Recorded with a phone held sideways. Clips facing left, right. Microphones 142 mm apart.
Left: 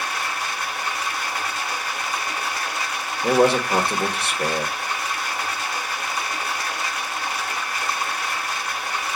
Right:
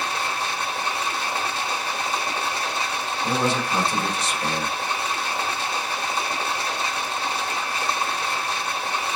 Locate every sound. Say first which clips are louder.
0.0 s running water: right 1 dB; 30° right (ahead or behind), 0.9 m
3.2 s a man speaking: left 7 dB; 65° left (ahead or behind), 1.4 m